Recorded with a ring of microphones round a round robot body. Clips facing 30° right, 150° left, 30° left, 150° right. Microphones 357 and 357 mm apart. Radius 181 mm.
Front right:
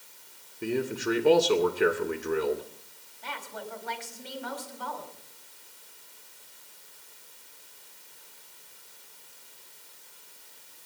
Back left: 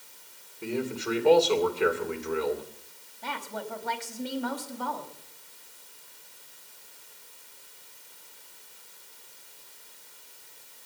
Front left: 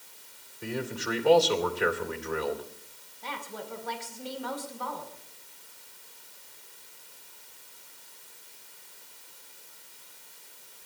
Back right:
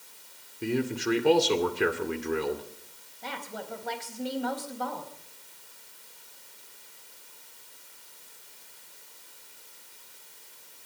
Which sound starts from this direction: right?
A man speaking, at 0.6 s.